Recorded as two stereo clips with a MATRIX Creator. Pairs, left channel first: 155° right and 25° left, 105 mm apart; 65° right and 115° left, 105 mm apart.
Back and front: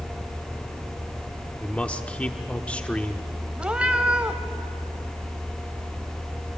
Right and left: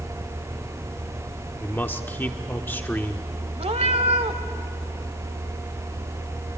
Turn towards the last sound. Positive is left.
turn(degrees=105)